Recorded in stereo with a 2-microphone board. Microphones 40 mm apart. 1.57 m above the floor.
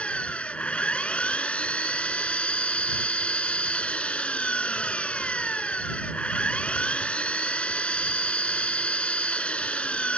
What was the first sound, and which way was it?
An engine running, 25° left (ahead or behind).